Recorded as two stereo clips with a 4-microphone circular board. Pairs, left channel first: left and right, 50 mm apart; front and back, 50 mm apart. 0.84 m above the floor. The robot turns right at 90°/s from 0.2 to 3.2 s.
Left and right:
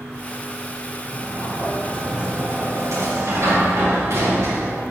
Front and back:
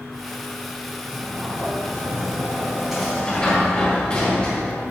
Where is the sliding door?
95° left, 4.5 m; by 4.8 s 70° right, 4.5 m.